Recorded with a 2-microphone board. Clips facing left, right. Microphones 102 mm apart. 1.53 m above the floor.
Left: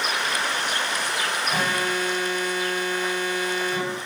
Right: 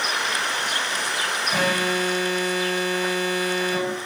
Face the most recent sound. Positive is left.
turn(degrees=-5)  # may be behind; listen again after turning